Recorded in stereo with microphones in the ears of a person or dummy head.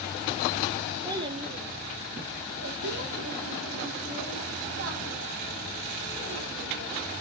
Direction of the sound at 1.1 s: 15° right (ahead or behind).